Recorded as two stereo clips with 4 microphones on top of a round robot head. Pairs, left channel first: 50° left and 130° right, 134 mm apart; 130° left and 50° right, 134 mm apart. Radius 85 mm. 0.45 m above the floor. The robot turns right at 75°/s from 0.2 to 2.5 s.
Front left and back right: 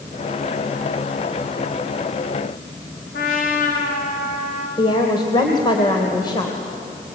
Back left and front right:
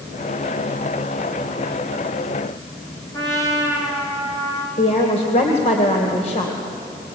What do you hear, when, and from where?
3.1 s a trumpet: 60° left, 5 m
4.8 s a woman speaking: 100° left, 2.5 m